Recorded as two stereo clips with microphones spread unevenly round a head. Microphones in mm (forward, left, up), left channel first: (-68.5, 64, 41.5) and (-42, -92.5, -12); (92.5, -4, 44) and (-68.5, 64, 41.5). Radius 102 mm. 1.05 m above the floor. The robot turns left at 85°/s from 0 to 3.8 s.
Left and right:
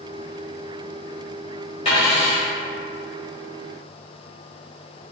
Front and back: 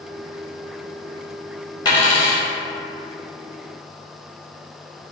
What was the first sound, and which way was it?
A dropped coin, 45° left.